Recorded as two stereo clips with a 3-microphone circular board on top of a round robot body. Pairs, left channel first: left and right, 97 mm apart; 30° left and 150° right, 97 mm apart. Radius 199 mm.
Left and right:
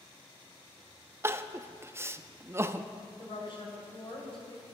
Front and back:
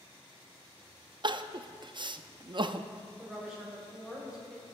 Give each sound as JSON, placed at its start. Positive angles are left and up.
{"t": 1.2, "sound": "crying", "azimuth_deg": -150, "distance_m": 0.6}
{"t": 3.2, "sound": "a woman speaking", "azimuth_deg": 125, "distance_m": 3.0}